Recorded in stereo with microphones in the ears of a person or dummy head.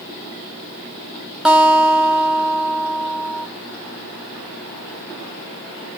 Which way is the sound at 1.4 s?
Centre (ahead or behind).